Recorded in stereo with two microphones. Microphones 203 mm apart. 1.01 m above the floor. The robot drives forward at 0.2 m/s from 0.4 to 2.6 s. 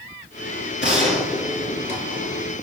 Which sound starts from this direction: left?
A gunshot, at 0.8 s.